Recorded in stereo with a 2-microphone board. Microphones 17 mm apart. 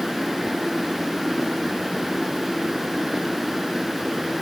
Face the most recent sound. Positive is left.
No sound to turn to.